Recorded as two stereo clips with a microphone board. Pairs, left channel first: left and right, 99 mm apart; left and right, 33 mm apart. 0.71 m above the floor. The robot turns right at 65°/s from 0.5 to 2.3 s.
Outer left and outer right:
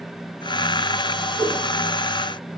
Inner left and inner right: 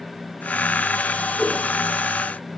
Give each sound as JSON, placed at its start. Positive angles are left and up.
{"t": 1.4, "sound": "a whoosh", "side_deg": 5, "distance_m": 1.5}